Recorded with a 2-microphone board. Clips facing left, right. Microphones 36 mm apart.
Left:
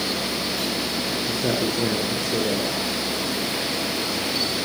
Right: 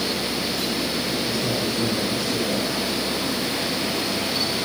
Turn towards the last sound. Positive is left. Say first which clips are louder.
# left 1 dB
turn(degrees=30)  # may be behind; listen again after turning